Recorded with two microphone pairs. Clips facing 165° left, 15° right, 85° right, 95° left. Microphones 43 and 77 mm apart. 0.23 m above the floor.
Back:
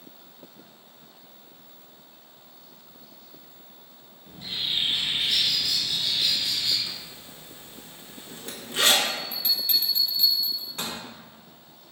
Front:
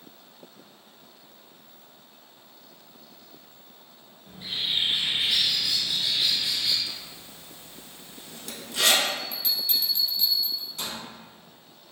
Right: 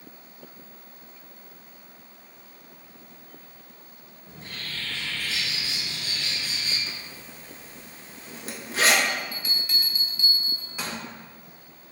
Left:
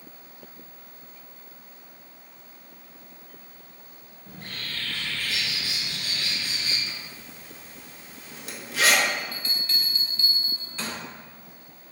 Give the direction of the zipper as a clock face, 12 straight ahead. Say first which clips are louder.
Even, even; 5 o'clock.